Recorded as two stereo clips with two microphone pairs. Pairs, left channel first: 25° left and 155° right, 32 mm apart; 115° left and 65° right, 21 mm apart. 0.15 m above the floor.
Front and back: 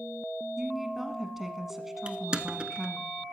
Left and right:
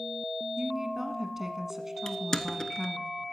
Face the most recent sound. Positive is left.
turn(degrees=165)